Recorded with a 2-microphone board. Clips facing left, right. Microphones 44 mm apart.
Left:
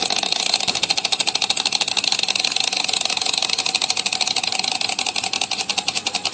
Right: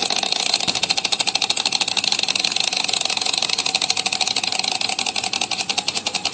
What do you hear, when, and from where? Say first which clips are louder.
0.7 s a crack: even; 30° right (ahead or behind), 3 m